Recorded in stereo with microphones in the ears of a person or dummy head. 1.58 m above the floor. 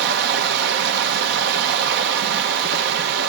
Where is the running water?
60° right (ahead or behind), 1.0 m.